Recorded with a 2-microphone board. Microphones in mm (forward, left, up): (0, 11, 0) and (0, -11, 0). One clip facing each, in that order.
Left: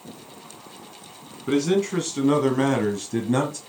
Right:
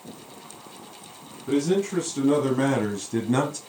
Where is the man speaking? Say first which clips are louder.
Left 2 dB; 45° left (ahead or behind), 1.8 m; by 3.6 s 10° right (ahead or behind), 1.3 m.